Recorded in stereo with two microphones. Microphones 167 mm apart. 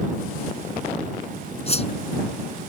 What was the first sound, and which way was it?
A whoosh, 40° left (ahead or behind).